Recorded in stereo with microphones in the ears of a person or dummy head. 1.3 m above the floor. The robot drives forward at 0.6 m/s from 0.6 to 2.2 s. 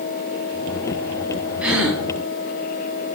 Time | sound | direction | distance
1.6 | a gasp | 10° right (ahead or behind) | 0.7 m